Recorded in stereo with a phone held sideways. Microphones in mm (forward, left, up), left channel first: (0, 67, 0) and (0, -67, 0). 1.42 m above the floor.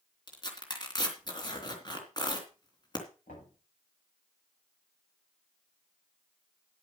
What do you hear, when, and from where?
0.3 s tearing paper: 35° left (ahead or behind), 3 m
3.3 s knocking: 75° left (ahead or behind), 7.5 m